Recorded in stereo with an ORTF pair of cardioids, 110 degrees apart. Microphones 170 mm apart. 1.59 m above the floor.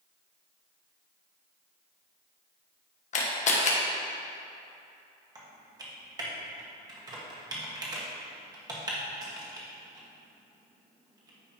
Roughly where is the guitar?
No guitar in this recording.